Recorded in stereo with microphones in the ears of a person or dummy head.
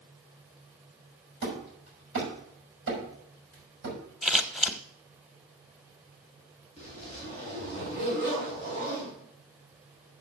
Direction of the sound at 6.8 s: 35° right (ahead or behind).